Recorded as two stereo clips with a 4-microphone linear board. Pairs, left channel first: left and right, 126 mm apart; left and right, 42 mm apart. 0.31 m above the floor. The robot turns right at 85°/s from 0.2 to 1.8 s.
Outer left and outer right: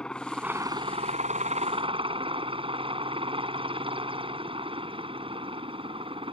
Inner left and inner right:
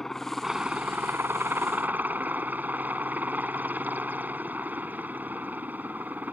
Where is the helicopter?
170° left; by 6.3 s 50° right.